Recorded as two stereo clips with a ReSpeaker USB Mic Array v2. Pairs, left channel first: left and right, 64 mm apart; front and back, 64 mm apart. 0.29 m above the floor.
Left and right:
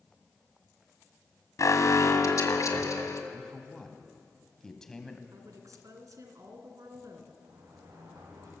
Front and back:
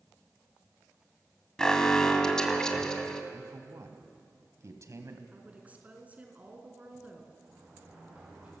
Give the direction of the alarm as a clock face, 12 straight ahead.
9 o'clock.